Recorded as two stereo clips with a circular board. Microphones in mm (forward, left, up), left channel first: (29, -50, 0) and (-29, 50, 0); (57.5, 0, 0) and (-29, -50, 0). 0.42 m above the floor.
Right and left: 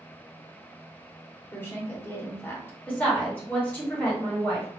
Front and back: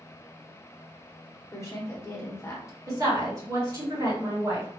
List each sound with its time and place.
1.5 s a woman speaking: 5° right, 1.1 m
2.9 s a woman speaking: 125° right, 1.5 m